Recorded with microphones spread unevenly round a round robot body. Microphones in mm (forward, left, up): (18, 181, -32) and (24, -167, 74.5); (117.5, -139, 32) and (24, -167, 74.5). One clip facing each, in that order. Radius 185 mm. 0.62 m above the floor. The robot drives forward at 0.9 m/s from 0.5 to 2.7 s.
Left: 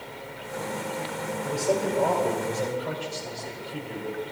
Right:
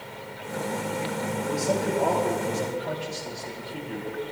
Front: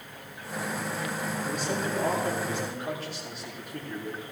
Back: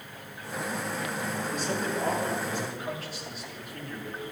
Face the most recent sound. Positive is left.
turn(degrees=90)